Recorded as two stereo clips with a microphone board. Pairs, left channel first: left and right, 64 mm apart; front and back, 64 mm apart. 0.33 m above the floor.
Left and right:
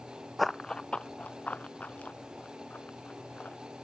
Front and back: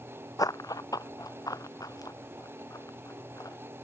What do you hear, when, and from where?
0.4 s running footsteps: straight ahead; by 3.6 s 25° left